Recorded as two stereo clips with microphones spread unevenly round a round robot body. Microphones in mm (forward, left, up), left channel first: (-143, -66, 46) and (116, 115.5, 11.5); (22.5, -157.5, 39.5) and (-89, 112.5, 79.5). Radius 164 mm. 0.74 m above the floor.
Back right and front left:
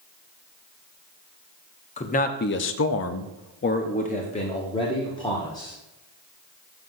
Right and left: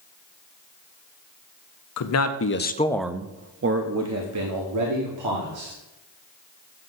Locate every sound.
2.0 s a man speaking: 75° right, 0.8 m; by 5.8 s 135° left, 1.9 m